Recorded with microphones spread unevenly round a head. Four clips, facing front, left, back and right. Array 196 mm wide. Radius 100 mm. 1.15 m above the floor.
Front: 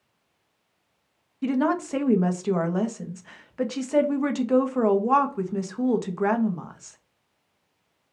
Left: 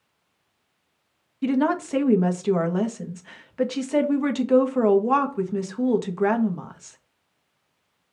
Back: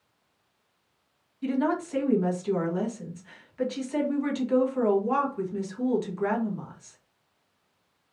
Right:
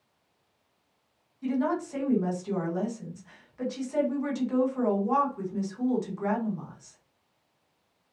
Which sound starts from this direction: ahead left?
A woman speaking, at 1.4 s.